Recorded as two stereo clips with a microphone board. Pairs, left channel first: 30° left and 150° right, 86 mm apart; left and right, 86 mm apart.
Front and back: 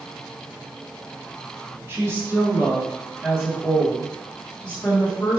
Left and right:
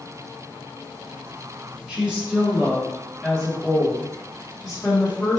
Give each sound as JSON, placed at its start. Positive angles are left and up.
{"t": 1.9, "sound": "a woman speaking", "azimuth_deg": -155, "distance_m": 1.7}